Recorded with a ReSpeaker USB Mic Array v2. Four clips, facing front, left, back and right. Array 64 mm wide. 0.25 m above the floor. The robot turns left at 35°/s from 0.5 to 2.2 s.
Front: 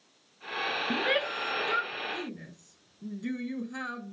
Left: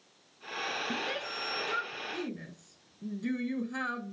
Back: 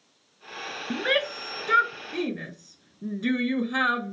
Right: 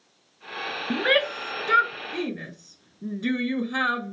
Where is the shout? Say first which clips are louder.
Right 13 dB, back 5 dB; 100° right; by 4.1 s 145° right.